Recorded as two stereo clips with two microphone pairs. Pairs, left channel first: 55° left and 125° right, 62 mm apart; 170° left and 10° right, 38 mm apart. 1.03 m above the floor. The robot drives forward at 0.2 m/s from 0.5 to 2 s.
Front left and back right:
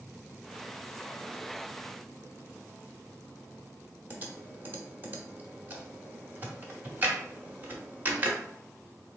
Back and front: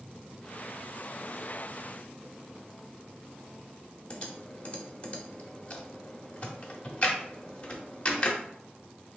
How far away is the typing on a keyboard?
About 0.8 m.